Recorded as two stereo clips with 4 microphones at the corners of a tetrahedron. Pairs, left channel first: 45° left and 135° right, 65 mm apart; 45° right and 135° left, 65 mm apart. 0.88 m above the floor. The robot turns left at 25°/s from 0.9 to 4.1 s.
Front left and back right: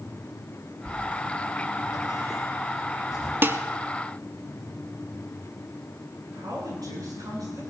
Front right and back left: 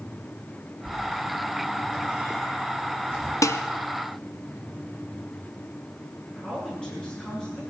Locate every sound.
0.8 s a sliding door: 70° left, 4.5 m; by 3.3 s 10° left, 4.5 m
3.4 s dishes clattering: 80° right, 0.7 m; by 3.6 s 85° right, 0.7 m
6.3 s a woman speaking: 120° right, 9.5 m